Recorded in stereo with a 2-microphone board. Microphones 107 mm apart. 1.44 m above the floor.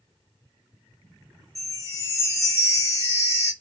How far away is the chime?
About 1.3 m.